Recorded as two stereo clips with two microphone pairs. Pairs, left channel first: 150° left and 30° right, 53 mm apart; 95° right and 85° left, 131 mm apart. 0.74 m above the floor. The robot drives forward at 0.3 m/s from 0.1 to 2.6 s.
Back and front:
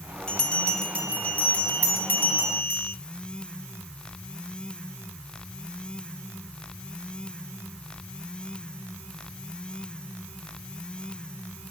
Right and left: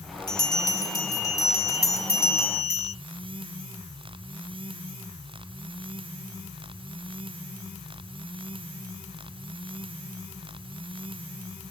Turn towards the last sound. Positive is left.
turn(degrees=-165)